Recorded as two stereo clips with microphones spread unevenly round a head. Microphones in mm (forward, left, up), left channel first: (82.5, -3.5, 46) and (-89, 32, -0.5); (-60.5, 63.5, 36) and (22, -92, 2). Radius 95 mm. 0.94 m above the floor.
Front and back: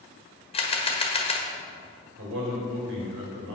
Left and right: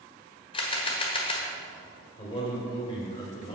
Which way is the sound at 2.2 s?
Straight behind.